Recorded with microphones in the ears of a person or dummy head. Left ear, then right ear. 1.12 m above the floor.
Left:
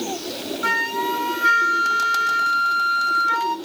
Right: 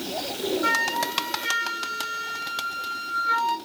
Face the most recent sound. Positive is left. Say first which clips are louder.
# left 3 dB
turn(degrees=25)  # may be behind; listen again after turning